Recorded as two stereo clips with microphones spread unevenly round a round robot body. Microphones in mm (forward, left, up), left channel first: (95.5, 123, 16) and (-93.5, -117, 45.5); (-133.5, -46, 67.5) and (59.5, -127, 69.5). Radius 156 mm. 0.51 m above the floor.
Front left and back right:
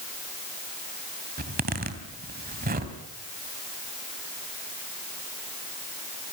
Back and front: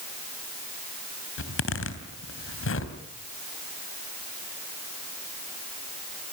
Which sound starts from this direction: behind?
A zipper, at 1.4 s.